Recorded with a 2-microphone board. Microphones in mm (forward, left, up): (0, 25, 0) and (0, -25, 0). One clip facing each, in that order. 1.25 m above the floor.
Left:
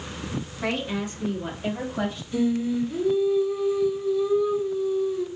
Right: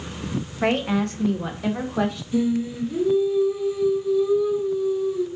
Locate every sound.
0.6 s a woman speaking: 40° right (ahead or behind), 0.7 m; by 2.2 s 85° right, 1.3 m
2.3 s singing: 5° right (ahead or behind), 0.9 m